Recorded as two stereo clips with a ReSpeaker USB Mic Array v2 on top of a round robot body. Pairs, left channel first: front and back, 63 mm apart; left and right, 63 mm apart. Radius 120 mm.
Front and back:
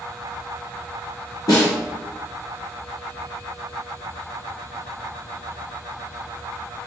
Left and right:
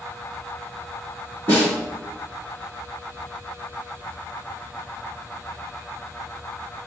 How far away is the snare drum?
About 1.4 m.